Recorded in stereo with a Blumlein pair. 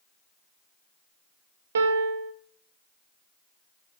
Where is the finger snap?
I don't hear a finger snap.